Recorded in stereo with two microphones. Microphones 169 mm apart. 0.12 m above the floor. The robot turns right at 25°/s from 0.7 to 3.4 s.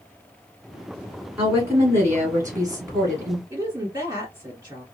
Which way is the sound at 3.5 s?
20° right (ahead or behind).